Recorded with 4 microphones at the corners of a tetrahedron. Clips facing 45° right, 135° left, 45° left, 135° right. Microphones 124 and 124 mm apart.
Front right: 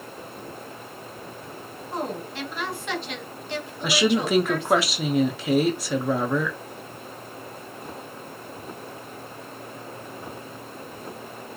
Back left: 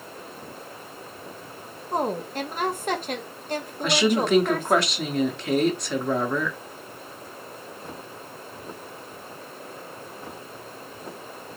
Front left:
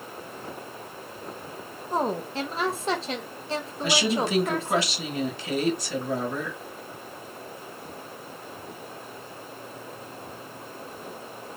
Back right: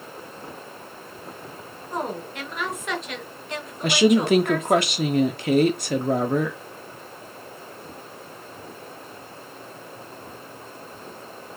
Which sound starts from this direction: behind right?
A woman speaking, at 3.8 s.